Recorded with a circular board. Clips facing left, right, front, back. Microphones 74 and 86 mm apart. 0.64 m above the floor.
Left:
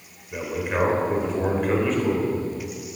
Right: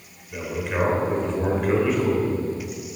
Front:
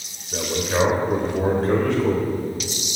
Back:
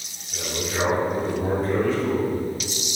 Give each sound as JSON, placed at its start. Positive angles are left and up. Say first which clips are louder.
{"t": 0.3, "sound": "a man speaking", "louder": "left 1 dB, front 6 dB", "azimuth_deg": 20, "distance_m": 3.0}